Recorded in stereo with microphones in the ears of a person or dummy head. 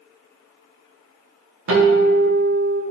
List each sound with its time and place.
1.7 s a guitar: 65° right (ahead or behind), 0.9 m